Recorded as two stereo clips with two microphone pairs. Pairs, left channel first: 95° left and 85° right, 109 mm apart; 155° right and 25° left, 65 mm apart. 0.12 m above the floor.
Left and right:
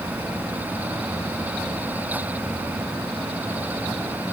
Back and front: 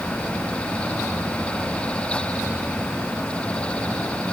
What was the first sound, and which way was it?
Only background noise.